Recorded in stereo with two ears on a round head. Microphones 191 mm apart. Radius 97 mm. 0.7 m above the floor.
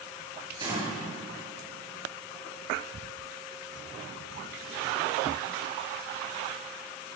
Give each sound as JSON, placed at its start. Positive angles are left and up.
{"t": 0.6, "sound": "a gunshot", "side_deg": -20, "distance_m": 9.5}